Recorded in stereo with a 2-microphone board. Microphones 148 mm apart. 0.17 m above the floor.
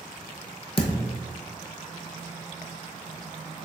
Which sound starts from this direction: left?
A thud, at 0.8 s.